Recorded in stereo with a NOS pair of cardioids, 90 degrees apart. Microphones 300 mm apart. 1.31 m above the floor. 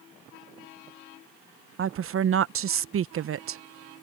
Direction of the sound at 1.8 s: 45° right.